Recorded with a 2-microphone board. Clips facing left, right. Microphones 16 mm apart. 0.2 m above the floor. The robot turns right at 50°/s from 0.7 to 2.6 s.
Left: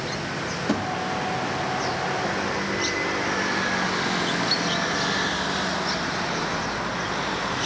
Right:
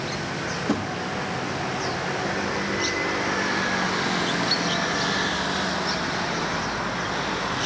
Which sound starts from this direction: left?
A thud, at 0.7 s.